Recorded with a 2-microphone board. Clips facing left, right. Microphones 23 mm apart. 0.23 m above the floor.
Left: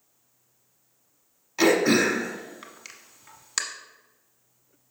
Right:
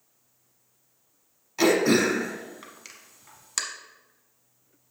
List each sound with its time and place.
1.6 s throat clearing: 10° left (ahead or behind), 1.0 m